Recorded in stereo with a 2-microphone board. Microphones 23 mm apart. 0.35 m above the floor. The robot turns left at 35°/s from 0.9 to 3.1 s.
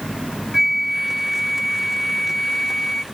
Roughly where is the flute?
Behind.